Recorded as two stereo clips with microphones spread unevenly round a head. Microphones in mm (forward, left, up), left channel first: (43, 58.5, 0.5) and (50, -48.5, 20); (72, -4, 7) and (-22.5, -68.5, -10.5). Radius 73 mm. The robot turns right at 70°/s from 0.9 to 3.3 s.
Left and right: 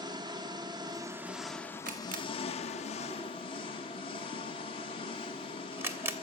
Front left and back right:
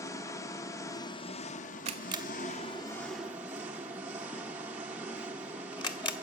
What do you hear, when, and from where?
0.0 s an engine running: 30° right, 1.2 m; by 6.2 s 135° left, 1.2 m
1.9 s a camera shutter: 120° right, 1.9 m; by 6.1 s 15° right, 1.9 m